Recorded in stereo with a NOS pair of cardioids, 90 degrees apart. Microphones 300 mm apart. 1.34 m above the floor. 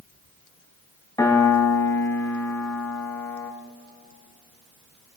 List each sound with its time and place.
1.2 s a piano: 10° left, 1.9 m